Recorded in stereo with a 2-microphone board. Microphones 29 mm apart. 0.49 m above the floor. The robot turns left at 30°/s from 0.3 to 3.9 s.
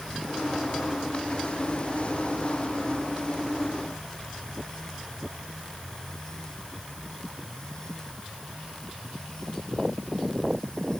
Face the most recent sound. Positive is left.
No sound to turn to.